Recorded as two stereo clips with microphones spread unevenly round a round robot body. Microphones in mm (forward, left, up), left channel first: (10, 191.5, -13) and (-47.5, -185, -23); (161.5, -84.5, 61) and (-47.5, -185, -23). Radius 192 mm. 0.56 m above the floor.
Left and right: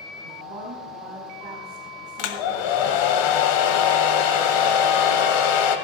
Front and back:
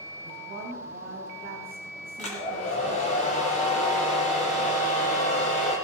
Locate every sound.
0.2 s a woman speaking: 115° right, 3.5 m
2.2 s a hair dryer: 100° left, 1.7 m